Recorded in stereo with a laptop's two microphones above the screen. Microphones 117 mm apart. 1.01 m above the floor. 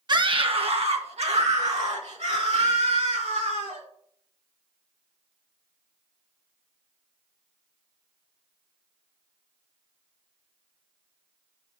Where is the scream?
40° right (ahead or behind), 1.0 m; by 3.8 s 80° right, 4 m.